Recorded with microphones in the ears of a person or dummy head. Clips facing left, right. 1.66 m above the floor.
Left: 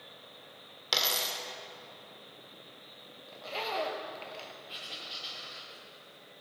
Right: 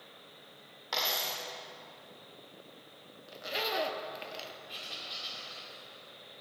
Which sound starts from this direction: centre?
Writing, at 4.7 s.